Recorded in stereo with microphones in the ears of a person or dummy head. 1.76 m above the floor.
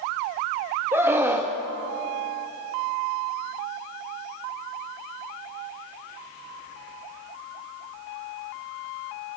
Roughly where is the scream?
Centre.